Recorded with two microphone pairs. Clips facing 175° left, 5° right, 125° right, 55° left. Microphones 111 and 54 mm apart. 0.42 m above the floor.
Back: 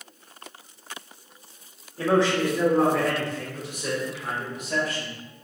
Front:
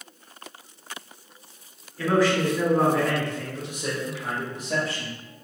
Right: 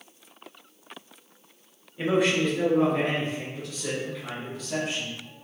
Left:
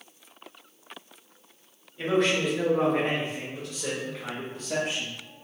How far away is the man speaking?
About 0.9 m.